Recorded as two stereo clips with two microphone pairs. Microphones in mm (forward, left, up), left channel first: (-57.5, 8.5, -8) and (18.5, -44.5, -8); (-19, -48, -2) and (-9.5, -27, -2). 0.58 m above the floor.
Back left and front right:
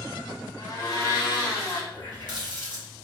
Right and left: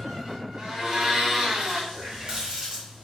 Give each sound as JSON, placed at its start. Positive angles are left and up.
{"t": 0.6, "sound": "a blender", "azimuth_deg": 115, "distance_m": 0.9}
{"t": 1.9, "sound": "a running tap", "azimuth_deg": 115, "distance_m": 1.3}